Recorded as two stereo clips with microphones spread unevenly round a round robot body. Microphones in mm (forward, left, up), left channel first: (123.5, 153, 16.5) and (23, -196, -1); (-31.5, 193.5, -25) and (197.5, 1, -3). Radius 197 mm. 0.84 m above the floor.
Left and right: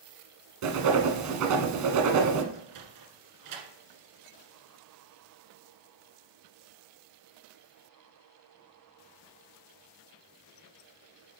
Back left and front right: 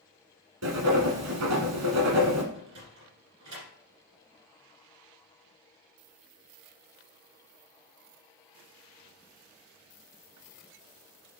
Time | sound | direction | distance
0.6 | writing | 70° right | 1.3 m
2.5 | a sliding door | 75° right | 1.8 m